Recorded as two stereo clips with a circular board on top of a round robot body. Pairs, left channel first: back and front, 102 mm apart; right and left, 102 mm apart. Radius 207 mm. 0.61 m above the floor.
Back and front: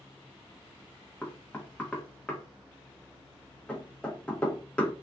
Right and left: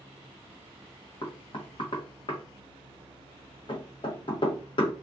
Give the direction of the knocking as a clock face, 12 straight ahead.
3 o'clock.